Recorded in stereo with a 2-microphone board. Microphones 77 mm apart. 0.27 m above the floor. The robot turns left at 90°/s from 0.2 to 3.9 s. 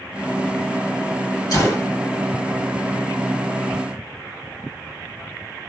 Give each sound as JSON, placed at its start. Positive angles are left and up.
{"t": 1.5, "sound": "a gunshot", "azimuth_deg": 60, "distance_m": 2.0}